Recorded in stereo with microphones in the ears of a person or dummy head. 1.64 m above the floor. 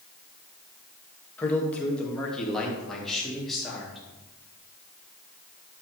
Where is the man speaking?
10° left (ahead or behind), 2.5 m; by 4.0 s centre (ahead or behind), 4 m.